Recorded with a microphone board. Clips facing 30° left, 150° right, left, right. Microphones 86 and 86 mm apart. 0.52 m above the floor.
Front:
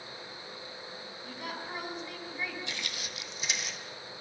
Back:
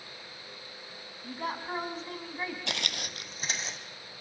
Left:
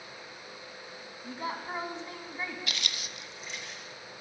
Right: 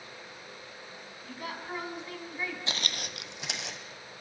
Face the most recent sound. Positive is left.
turn(degrees=-90)